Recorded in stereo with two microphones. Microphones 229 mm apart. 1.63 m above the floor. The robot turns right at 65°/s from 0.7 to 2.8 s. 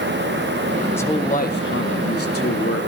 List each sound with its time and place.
0.9 s a man speaking: 10° left, 1.9 m; by 2.9 s 130° left, 1.9 m